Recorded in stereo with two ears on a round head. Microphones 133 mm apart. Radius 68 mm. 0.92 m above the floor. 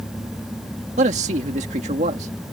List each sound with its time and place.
1.0 s a man speaking: 45° right (ahead or behind)